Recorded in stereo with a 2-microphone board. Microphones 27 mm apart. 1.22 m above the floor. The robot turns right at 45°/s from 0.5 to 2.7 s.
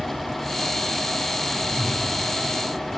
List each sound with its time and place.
1.6 s a whoosh: 25° right (ahead or behind), 5 m; by 2.1 s 5° right (ahead or behind), 5 m